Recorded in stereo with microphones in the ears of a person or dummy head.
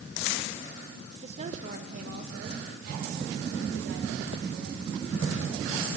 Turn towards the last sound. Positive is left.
turn(degrees=-65)  # may be behind; listen again after turning